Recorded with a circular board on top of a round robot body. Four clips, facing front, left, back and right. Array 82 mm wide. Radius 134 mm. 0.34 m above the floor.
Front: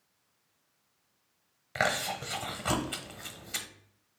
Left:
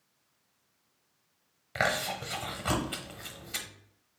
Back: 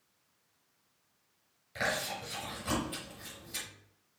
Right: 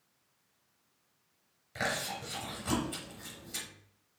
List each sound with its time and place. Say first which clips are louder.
1.8 s chewing: left 5 dB, front 4 dB; 40° left, 1.0 m